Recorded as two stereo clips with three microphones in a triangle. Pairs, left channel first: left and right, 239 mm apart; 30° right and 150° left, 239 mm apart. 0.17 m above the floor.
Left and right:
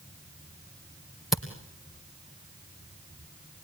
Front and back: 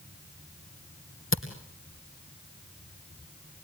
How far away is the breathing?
I don't hear breathing.